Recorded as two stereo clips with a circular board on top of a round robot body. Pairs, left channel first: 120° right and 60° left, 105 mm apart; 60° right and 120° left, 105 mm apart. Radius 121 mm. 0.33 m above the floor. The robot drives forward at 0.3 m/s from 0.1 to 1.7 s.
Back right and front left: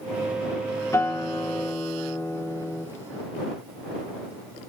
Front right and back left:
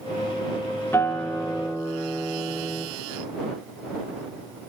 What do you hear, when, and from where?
0.9 s a guitar: 105° right, 1.6 m; by 2.9 s 120° right, 1.6 m